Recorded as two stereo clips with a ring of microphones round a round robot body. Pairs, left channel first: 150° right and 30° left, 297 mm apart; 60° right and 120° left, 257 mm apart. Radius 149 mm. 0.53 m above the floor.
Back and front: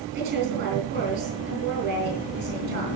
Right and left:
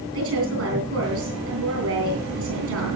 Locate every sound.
0.1 s a woman speaking: 90° left, 8.5 m